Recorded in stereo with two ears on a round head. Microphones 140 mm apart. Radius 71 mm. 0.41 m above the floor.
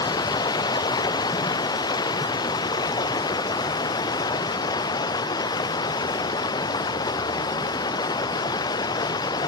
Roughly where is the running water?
Left.